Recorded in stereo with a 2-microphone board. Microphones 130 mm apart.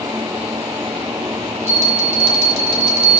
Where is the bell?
50° right (ahead or behind), 1.5 m.